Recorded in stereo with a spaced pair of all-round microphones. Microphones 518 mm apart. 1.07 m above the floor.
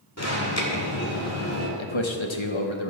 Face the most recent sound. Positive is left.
turn(degrees=70)  # may be behind; listen again after turning